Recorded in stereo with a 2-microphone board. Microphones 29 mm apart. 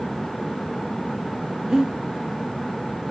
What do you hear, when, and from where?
1.7 s breathing: 15° right (ahead or behind), 0.6 m